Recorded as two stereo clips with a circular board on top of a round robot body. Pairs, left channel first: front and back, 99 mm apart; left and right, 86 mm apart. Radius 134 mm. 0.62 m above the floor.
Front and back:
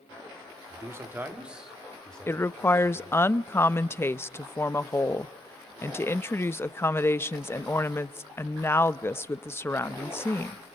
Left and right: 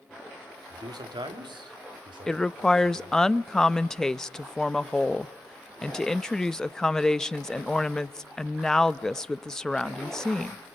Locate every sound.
0.7 s a man speaking: 125° right, 2.5 m; by 3.3 s 60° right, 3 m
2.3 s a woman speaking: 15° left, 0.7 m